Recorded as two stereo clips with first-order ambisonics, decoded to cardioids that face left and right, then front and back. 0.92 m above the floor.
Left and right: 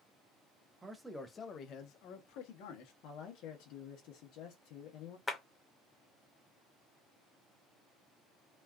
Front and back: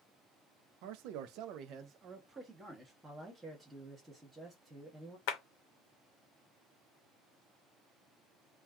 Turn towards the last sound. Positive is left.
turn(degrees=10)